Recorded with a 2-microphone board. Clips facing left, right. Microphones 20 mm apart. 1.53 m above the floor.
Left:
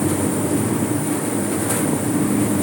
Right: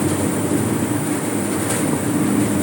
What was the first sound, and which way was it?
Only background noise.